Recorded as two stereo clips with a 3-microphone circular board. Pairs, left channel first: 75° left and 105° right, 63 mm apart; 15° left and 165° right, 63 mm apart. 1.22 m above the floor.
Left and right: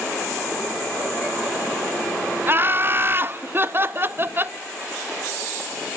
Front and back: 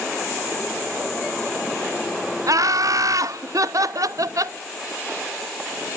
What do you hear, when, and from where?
2.5 s laughter: 155° right, 0.9 m